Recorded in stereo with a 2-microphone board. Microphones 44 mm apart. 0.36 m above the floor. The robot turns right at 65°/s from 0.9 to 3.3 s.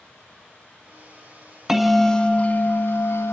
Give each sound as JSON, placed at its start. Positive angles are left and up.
{"t": 1.7, "sound": "a bell", "azimuth_deg": -15, "distance_m": 1.3}